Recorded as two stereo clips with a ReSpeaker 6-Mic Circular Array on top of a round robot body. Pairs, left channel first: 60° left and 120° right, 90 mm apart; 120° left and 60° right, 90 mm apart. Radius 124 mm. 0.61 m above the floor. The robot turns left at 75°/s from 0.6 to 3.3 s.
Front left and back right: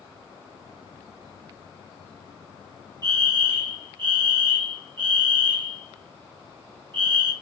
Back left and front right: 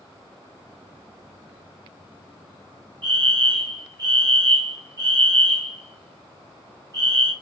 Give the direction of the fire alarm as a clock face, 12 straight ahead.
3 o'clock.